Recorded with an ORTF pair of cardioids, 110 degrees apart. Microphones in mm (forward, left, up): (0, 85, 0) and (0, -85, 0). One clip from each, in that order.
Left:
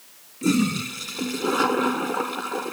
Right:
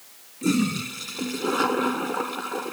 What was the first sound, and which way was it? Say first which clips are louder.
A toilet flushing: left 2 dB; 15° left.